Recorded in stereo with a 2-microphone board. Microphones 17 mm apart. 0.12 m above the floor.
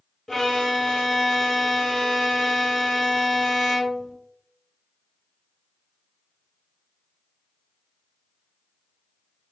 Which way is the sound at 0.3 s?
20° left (ahead or behind).